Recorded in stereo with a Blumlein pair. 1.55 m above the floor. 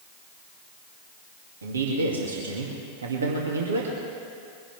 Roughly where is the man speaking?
Right.